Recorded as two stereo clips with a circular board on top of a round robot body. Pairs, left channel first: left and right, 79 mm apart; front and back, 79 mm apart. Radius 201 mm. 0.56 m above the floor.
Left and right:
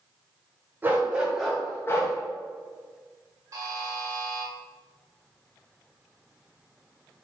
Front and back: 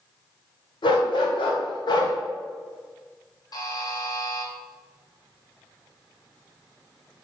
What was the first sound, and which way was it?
A dog barking, 20° right.